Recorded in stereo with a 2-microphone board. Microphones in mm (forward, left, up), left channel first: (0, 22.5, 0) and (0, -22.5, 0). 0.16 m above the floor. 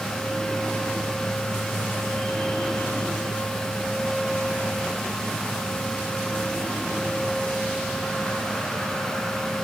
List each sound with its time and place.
Only background noise.